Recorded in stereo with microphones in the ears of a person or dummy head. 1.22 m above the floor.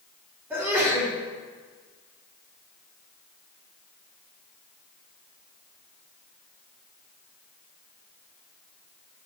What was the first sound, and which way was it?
A sneeze, 10° right (ahead or behind).